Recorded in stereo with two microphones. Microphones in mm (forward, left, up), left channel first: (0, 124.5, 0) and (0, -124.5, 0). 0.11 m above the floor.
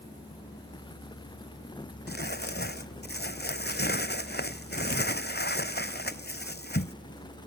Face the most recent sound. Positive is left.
turn(degrees=40)  # may be behind; listen again after turning